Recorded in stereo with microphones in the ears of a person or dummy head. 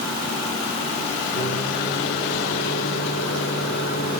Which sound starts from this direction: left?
A microwave, at 1.4 s.